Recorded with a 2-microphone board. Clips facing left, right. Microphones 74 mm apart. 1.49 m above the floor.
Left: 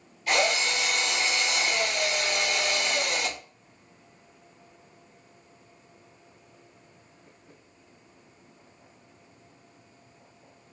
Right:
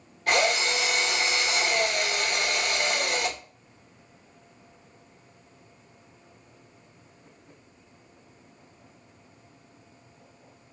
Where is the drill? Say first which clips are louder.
Right 1 dB; 50° right (ahead or behind), 1.4 m.